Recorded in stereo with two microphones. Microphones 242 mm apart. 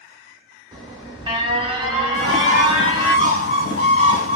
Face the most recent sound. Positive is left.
turn(degrees=60)  # may be behind; listen again after turning